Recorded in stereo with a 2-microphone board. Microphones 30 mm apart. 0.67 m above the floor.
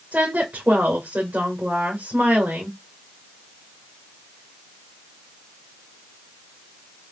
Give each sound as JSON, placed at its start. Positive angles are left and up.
{"t": 0.1, "sound": "a woman speaking", "side_deg": -70, "distance_m": 2.0}